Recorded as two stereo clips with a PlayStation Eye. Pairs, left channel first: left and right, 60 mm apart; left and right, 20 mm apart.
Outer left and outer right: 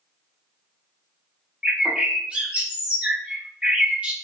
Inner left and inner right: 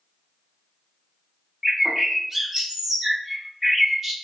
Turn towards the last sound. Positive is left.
turn(degrees=-20)  # may be behind; listen again after turning